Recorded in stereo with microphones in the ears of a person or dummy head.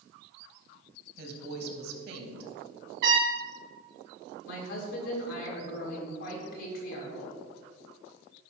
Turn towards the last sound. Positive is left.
turn(degrees=65)  # may be behind; listen again after turning